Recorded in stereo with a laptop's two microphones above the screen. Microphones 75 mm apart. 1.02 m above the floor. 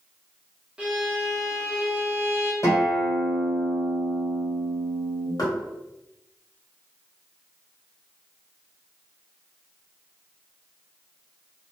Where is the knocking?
55° left (ahead or behind), 1.0 m.